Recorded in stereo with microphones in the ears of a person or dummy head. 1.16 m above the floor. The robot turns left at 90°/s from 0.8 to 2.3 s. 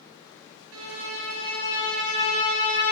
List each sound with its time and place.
0.7 s a violin: 75° right, 1.6 m; by 2.9 s 150° left, 1.6 m